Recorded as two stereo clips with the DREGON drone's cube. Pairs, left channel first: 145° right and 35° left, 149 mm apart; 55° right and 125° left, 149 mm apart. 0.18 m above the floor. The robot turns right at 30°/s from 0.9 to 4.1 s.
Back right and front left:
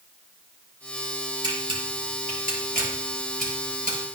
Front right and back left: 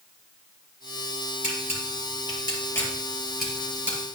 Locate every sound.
1.4 s a camera shutter: 25° right, 5 m; by 4.0 s 50° left, 5 m